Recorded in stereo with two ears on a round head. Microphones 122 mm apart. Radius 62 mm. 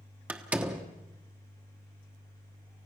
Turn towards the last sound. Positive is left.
turn(degrees=-10)  # may be behind; listen again after turning